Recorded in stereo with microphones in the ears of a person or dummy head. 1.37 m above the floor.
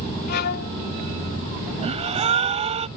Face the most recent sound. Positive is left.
turn(degrees=-40)  # may be behind; listen again after turning